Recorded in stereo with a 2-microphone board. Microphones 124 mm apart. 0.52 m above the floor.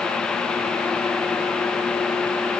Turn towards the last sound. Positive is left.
No sound to turn to.